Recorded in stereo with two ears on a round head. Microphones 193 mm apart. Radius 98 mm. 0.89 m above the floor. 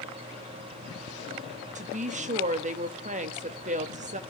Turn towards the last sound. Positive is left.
turn(degrees=-35)  # may be behind; listen again after turning